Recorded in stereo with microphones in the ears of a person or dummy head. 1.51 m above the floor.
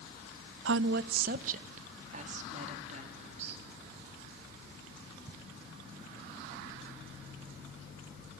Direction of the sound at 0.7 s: 80° right.